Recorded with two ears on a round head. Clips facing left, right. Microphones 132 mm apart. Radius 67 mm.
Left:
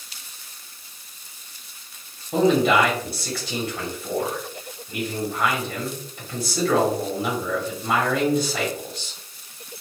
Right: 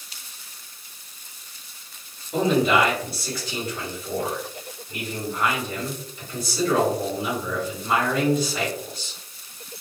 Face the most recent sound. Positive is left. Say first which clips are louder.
# left 2 dB
turn(degrees=55)  # may be behind; listen again after turning